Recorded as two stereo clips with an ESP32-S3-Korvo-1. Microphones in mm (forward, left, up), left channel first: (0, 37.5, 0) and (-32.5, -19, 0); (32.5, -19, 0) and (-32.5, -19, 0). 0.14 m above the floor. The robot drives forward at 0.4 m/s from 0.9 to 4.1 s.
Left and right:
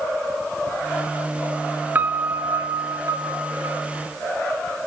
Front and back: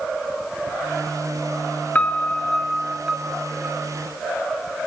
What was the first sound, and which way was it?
A piano, 65° right.